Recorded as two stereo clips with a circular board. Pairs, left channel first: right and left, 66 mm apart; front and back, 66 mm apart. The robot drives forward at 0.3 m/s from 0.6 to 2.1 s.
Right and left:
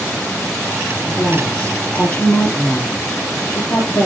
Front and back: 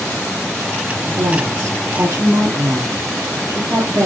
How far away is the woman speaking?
About 3 m.